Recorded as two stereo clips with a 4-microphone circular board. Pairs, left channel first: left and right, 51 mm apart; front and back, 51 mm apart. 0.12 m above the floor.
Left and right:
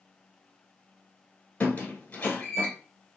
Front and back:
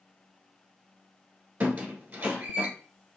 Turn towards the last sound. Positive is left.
turn(degrees=135)